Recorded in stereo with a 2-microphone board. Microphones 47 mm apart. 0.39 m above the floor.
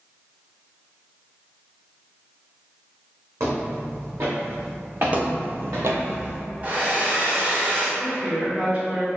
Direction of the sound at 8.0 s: 30° right (ahead or behind).